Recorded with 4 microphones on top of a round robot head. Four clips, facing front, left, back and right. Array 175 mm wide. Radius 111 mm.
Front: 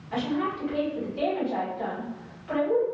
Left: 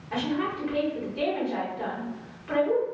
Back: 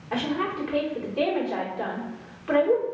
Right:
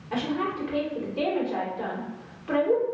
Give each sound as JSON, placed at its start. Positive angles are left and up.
{"t": 0.1, "sound": "a woman speaking", "azimuth_deg": -165, "distance_m": 1.9}